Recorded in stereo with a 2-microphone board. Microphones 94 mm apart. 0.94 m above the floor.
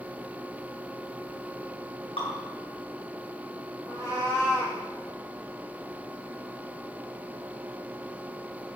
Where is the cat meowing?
35° left (ahead or behind), 4 m.